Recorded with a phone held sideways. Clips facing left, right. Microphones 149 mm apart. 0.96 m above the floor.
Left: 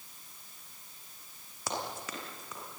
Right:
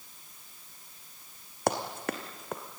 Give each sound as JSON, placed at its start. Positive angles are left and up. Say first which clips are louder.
{"t": 1.7, "sound": "running footsteps", "louder": "right 8 dB", "side_deg": -65, "distance_m": 2.5}